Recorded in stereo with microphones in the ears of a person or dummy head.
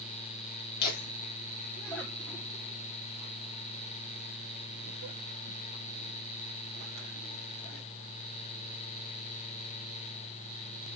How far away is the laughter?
About 1.0 m.